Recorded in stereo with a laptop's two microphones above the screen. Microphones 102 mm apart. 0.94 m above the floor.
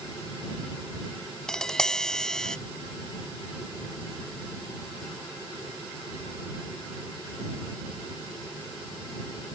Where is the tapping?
5° left (ahead or behind).